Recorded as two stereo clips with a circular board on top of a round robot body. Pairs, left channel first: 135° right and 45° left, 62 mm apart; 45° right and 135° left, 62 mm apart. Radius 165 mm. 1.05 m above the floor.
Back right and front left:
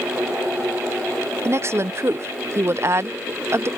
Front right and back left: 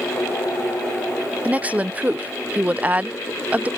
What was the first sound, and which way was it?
A woman speaking, 70° left.